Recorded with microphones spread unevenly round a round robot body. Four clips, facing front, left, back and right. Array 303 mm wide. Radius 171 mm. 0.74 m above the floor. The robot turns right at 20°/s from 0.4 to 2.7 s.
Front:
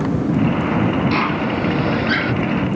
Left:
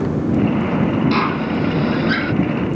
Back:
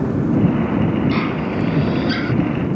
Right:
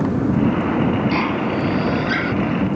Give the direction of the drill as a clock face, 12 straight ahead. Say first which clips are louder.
Left 1 dB, front 1 dB; 8 o'clock.